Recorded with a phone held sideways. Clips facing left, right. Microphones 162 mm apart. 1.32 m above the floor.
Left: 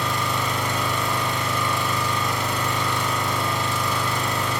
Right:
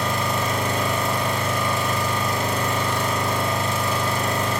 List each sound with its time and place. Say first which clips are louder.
0.0 s an engine running: right 2 dB; 45° right (ahead or behind), 1.4 m